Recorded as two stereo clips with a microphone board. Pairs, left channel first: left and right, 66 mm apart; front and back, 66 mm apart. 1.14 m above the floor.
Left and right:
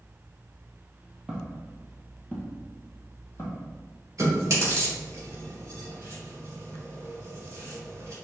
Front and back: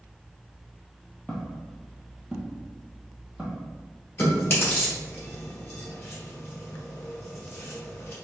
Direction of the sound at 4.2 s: 50° right.